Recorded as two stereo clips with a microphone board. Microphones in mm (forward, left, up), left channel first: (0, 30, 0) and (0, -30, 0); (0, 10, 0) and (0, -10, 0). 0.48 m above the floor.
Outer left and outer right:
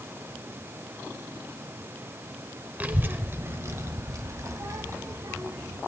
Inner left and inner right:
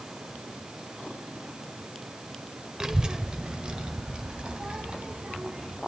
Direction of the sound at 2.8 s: 30° right (ahead or behind).